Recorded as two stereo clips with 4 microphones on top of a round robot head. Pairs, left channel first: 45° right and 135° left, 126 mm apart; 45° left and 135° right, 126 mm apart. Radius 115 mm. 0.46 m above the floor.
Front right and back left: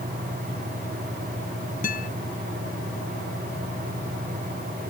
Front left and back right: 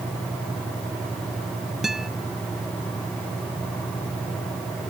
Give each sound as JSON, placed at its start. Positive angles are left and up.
{"t": 1.8, "sound": "a guitar", "azimuth_deg": -50}